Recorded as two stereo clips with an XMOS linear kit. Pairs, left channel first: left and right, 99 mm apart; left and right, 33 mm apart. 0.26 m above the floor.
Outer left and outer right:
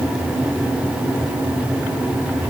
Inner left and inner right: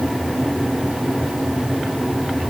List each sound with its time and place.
Only background noise.